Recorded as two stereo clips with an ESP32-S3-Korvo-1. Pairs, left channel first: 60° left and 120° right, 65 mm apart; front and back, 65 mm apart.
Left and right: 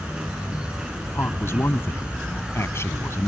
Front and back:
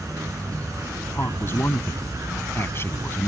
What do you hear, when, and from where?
0.0 s an insect: 165° left
1.1 s a man speaking: 35° left